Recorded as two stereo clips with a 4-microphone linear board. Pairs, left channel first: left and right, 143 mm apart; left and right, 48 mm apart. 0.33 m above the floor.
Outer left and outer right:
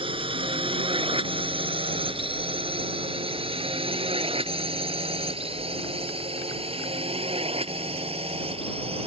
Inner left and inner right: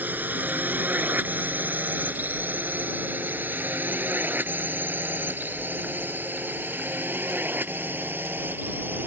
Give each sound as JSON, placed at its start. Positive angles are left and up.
{"t": 0.0, "sound": "a drone", "side_deg": -40}